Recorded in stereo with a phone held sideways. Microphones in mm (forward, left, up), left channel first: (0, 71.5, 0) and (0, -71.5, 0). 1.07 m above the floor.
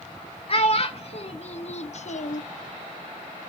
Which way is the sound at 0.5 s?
45° left (ahead or behind).